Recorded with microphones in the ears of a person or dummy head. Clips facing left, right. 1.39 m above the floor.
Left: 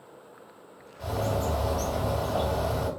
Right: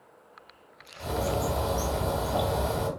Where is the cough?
No cough in this recording.